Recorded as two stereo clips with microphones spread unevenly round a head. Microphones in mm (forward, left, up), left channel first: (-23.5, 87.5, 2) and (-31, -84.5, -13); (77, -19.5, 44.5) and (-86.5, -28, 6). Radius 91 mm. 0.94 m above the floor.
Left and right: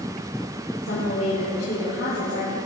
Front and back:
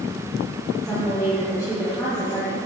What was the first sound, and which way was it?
A woman speaking, 85° left.